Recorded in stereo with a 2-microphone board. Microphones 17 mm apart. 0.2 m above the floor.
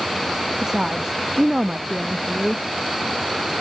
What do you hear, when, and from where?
0.6 s a woman speaking: 35° right (ahead or behind)